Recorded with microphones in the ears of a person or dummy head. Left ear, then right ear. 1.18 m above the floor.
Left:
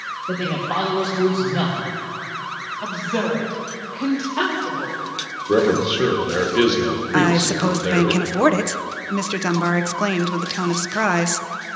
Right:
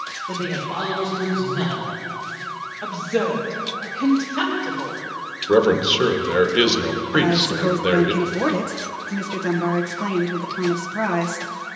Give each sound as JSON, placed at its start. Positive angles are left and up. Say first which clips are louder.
{"t": 0.3, "sound": "a man speaking", "louder": "left 5 dB", "side_deg": 70, "distance_m": 1.7}
{"t": 2.8, "sound": "a woman speaking", "louder": "right 2 dB", "side_deg": 5, "distance_m": 2.5}
{"t": 5.5, "sound": "a man speaking", "louder": "right 2 dB", "side_deg": -20, "distance_m": 1.2}
{"t": 7.1, "sound": "a woman speaking", "louder": "even", "side_deg": 30, "distance_m": 0.6}